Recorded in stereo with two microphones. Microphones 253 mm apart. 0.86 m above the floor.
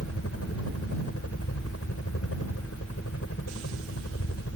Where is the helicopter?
65° left (ahead or behind).